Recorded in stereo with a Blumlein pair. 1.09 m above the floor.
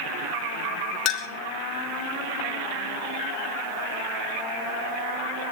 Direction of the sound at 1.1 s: 40° left.